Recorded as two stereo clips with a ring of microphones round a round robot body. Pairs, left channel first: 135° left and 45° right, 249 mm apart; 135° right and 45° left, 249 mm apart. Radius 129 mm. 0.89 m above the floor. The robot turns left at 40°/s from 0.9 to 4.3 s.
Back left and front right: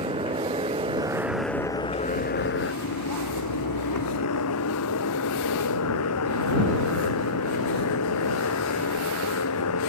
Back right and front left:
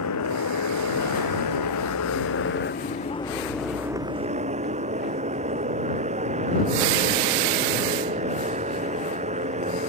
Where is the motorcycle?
115° right; by 9.9 s 110° left.